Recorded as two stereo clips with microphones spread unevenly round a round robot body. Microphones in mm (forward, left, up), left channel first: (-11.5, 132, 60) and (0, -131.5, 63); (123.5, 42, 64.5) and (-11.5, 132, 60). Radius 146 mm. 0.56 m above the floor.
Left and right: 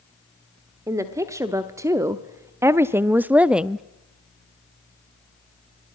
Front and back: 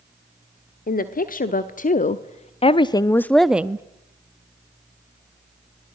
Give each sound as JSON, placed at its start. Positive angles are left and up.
{"t": 0.9, "sound": "a woman speaking", "azimuth_deg": -10, "distance_m": 1.5}